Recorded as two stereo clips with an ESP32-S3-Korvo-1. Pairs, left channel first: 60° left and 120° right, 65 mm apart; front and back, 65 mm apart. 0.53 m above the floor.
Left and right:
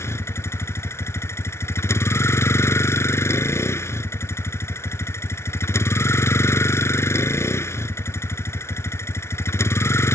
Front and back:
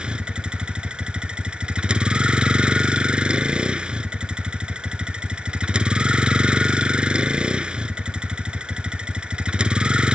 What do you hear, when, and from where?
0.0 s a vehicle: 105° left